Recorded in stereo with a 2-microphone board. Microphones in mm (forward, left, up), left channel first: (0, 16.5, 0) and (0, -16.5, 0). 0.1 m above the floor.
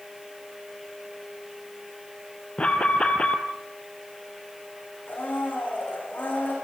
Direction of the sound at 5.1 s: 75° left (ahead or behind).